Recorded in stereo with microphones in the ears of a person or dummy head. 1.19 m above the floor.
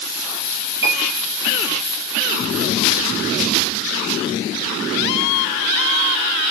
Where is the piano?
60° right (ahead or behind), 5 m.